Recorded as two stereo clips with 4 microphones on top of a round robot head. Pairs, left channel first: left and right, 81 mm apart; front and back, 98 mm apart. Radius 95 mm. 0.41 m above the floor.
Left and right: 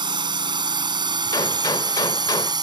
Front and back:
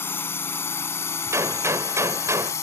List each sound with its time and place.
0.0 s a drone: 70° right; by 2.6 s 60° right
1.3 s a gunshot: 125° left